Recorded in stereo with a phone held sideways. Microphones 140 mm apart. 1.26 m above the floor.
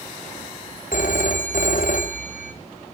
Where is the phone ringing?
65° left (ahead or behind), 1.0 m.